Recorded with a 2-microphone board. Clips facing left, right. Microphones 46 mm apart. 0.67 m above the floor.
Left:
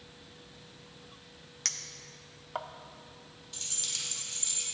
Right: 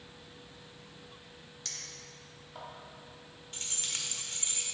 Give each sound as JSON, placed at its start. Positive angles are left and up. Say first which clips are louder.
{"t": 1.6, "sound": "a clink", "louder": "left 5 dB", "side_deg": 65, "distance_m": 0.5}
{"t": 3.5, "sound": "keys jangling", "louder": "right 1 dB", "side_deg": -35, "distance_m": 1.4}